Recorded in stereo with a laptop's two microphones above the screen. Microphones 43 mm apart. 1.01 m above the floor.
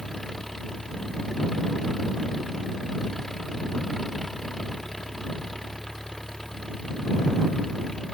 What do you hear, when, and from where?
0.0 s an engine running: 10° left (ahead or behind)